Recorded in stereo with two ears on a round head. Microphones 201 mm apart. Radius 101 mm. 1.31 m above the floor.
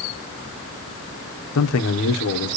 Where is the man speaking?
65° left (ahead or behind), 1.1 m.